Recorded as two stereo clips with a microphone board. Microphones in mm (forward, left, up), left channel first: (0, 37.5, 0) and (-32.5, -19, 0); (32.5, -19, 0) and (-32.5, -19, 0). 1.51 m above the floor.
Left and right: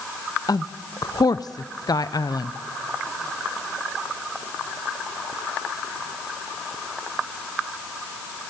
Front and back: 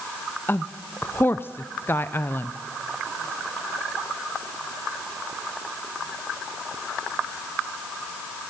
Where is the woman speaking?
55° left, 0.6 m.